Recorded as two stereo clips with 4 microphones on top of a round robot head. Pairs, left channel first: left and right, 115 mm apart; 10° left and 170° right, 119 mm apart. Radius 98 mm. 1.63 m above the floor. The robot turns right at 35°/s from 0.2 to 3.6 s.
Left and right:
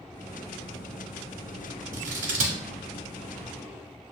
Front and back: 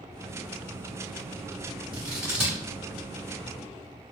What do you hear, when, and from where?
1.9 s scissors: 110° right, 0.7 m; by 2.6 s 85° right, 0.7 m